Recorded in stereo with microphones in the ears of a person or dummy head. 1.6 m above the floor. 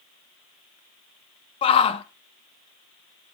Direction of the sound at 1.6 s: 30° left (ahead or behind).